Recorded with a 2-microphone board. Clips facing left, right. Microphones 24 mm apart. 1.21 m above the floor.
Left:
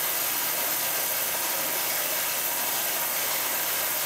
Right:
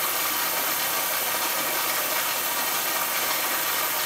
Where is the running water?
65° right (ahead or behind), 2 m.